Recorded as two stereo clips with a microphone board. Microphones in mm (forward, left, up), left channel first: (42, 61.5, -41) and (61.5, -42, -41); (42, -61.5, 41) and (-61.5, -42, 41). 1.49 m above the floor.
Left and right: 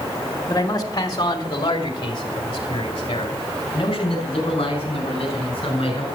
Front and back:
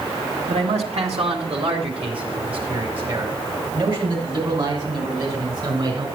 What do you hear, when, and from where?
0.5 s a man speaking: 160° left, 2.0 m; by 6.1 s 130° left, 6.5 m